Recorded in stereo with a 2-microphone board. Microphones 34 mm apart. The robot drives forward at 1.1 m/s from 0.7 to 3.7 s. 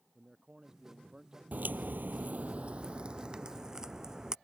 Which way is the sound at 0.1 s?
20° right (ahead or behind).